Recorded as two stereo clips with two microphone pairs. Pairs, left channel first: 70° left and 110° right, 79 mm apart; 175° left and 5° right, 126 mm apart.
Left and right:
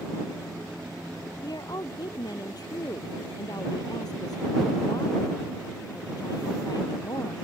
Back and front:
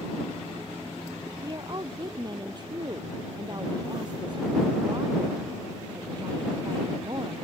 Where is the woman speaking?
45° left.